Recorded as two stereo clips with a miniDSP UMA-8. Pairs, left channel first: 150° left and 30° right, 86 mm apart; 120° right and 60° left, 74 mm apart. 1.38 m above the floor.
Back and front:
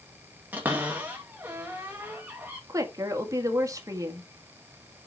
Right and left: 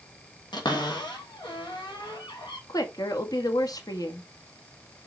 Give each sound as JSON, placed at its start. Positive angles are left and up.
{"t": 0.5, "sound": "a cupboard door", "azimuth_deg": -100, "distance_m": 2.5}
{"t": 2.7, "sound": "a woman speaking", "azimuth_deg": -85, "distance_m": 1.8}